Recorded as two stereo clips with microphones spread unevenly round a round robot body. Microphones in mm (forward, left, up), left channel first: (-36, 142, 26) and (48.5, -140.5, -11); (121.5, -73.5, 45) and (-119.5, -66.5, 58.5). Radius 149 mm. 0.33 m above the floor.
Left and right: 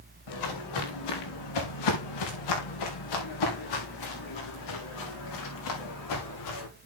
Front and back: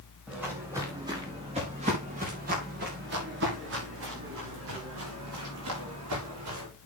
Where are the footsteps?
90° left, 5 m; by 6.7 s 140° left, 9 m.